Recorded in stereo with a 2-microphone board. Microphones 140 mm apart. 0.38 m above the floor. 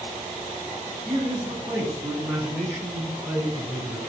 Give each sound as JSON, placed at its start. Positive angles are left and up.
{"t": 1.1, "sound": "a man speaking", "side_deg": -35, "distance_m": 5.0}